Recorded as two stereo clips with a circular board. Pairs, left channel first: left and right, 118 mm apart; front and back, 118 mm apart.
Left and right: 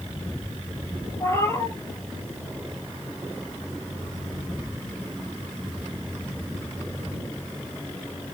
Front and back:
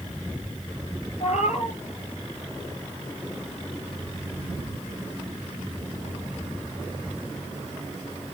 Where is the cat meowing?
20° left, 2 m.